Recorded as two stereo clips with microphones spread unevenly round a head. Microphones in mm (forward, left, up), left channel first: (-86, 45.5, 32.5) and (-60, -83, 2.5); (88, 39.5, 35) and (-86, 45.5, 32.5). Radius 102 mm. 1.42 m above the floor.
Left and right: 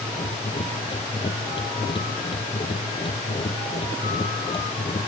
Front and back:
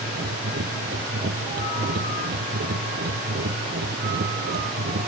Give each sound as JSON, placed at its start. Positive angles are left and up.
{"t": 0.0, "sound": "a machine running", "azimuth_deg": 145}